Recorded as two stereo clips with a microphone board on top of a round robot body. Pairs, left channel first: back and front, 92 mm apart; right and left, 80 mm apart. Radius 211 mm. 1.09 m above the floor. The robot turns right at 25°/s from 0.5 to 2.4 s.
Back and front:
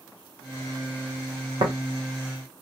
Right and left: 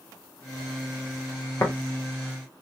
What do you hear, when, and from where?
1.6 s tapping: 30° right, 0.7 m